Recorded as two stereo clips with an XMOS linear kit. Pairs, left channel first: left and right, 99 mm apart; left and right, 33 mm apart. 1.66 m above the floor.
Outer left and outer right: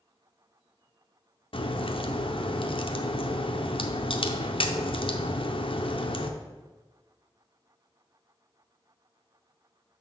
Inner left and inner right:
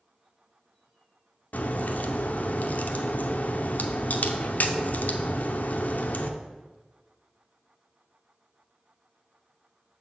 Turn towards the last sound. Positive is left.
turn(degrees=60)  # may be behind; listen again after turning